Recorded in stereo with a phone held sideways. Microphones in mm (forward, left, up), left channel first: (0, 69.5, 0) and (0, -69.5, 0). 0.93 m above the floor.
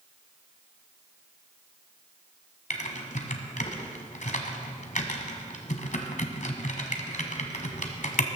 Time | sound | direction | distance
2.7 | typing on a keyboard | 65° left (ahead or behind) | 1.6 m